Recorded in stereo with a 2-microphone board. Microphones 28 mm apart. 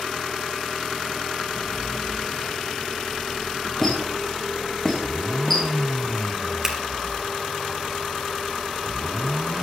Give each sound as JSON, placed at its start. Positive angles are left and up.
{"t": 3.8, "sound": "a squeak", "side_deg": 15, "distance_m": 3.5}
{"t": 6.6, "sound": "scissors", "side_deg": -20, "distance_m": 2.5}